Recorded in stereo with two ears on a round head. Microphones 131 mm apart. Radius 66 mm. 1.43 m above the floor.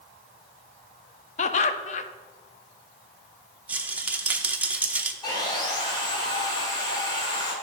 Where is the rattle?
10° right (ahead or behind), 0.5 m.